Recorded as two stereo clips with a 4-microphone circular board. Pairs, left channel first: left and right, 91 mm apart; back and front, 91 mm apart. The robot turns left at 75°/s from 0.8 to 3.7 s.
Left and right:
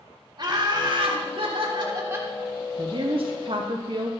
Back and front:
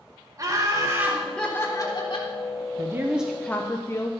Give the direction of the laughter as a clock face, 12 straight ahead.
2 o'clock.